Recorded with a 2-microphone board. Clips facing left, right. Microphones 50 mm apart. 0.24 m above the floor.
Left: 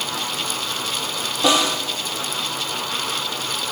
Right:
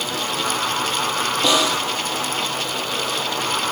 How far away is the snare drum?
About 4.5 m.